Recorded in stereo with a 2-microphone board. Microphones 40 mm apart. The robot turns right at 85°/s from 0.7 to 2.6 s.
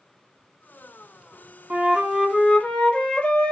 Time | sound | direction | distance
1.7 | a flute | 45° right | 0.5 m